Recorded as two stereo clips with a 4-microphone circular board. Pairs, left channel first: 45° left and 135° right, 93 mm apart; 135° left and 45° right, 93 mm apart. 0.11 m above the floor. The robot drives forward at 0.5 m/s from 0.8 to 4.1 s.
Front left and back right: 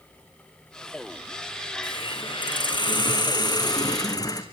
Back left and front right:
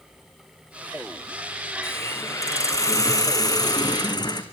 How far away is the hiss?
About 3 m.